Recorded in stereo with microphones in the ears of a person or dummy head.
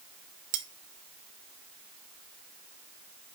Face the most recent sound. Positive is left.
turn(degrees=-25)  # may be behind; listen again after turning